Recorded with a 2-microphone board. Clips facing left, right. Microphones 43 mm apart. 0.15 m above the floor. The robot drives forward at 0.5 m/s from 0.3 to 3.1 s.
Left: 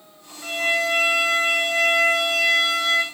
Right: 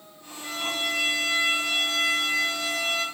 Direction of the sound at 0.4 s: 85° left.